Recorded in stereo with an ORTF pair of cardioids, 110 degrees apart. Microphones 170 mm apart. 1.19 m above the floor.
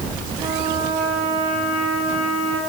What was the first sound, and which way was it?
A trumpet, 40° right.